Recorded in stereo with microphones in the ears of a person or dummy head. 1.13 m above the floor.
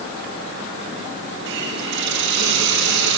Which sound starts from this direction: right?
A hiss, at 1.5 s.